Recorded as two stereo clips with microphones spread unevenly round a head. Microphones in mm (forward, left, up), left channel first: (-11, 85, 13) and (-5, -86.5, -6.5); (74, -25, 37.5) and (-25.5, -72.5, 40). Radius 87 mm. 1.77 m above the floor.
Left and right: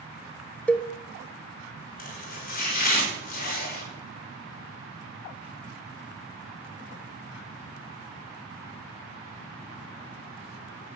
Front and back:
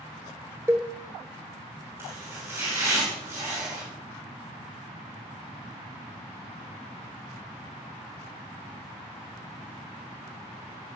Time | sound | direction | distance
0.7 | a cowbell | 150° left | 1.1 m
2.0 | chopping | 130° left | 5.5 m